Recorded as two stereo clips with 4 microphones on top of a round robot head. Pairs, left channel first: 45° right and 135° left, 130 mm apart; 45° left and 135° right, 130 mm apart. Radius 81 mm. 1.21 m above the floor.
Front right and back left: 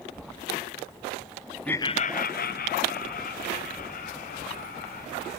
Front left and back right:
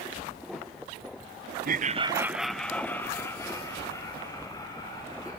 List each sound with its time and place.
1.6 s laughter: 130° right, 0.8 m; by 5.4 s 15° right, 5.5 m